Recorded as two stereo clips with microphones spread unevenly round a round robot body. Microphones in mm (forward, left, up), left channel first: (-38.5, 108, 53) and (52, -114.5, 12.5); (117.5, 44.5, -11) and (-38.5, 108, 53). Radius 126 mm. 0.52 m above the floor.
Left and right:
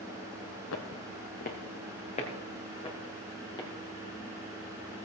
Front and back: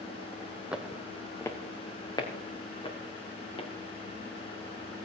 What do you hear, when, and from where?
0.7 s footsteps: 85° left, 1.3 m; by 3.7 s 40° left, 5 m